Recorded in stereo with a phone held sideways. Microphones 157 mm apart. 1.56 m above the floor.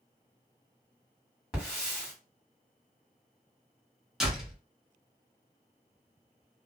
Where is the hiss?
5° right (ahead or behind), 1.8 m.